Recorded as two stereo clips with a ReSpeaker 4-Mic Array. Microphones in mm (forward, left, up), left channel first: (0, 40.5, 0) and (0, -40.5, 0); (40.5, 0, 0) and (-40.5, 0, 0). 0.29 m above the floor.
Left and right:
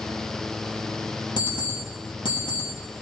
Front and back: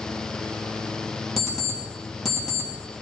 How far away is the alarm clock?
About 3 m.